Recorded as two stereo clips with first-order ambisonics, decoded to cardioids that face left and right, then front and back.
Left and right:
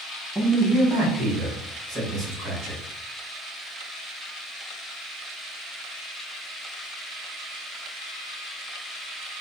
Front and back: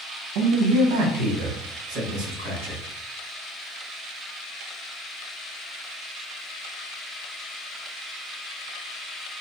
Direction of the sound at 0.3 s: Straight behind.